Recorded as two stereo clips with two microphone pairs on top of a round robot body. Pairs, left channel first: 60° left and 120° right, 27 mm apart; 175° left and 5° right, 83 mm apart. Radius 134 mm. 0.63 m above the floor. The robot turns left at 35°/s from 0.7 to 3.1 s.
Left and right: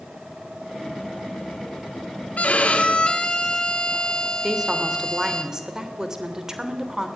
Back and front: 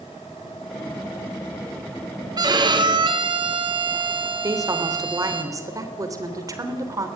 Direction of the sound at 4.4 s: 55° right.